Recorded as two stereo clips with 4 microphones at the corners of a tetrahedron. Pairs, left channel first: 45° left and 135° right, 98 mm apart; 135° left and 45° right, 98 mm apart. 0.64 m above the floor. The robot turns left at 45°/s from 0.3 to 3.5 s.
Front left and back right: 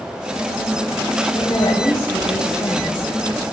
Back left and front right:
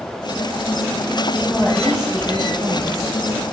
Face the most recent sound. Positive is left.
turn(degrees=-35)